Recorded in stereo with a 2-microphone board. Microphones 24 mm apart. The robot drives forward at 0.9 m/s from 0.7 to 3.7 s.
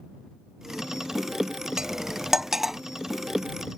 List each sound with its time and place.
1.8 s cutlery clinking: 35° right (ahead or behind); by 2.8 s 20° right (ahead or behind)